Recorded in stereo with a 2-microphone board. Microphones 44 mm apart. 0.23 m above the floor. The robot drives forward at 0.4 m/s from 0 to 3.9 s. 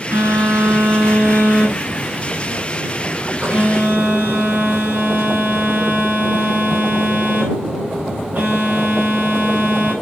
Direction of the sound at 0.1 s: 60° right (ahead or behind).